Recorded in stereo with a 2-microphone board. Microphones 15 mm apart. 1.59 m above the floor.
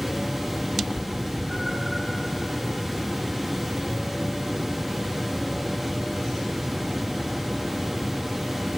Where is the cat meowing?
Centre (ahead or behind), 6 m; by 2.0 s 15° right (ahead or behind), 5 m.